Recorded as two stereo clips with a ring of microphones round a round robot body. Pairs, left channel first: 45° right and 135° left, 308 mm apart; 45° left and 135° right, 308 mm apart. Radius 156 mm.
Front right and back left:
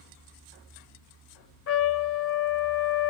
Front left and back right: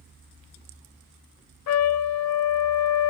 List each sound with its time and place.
1.7 s a trumpet: 5° left, 0.6 m